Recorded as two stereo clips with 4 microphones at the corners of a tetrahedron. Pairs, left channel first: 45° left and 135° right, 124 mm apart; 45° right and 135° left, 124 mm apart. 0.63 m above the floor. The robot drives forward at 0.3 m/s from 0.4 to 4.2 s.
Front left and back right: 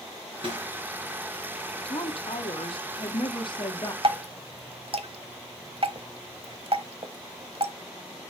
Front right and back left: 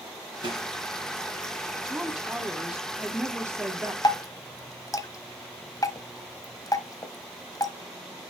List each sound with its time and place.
0.4 s a snare drum: 175° right, 5 m
1.9 s a woman speaking: 45° left, 1.4 m; by 3.9 s 80° left, 1.2 m
4.0 s dripping: 100° right, 1.0 m; by 7.7 s 105° right, 1.0 m